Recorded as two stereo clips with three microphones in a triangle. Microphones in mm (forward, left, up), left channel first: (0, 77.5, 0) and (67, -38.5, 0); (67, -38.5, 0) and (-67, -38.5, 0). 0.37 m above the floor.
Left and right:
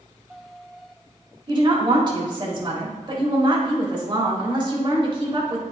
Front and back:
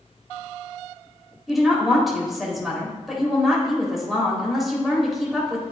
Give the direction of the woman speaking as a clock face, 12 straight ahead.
3 o'clock.